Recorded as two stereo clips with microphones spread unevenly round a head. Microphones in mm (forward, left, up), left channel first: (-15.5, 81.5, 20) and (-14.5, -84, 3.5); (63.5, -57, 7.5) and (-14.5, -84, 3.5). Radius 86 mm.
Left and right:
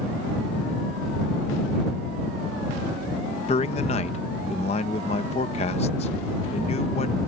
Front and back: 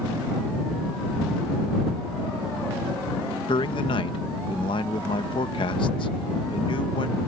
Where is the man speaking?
35° left.